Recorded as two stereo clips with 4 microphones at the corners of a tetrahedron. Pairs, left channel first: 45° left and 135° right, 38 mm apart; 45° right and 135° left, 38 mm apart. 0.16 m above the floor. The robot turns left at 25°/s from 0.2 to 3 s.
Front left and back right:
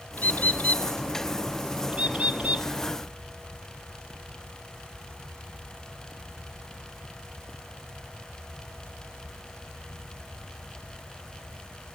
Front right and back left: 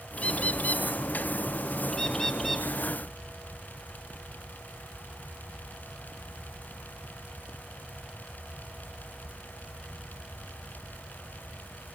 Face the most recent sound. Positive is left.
turn(degrees=-130)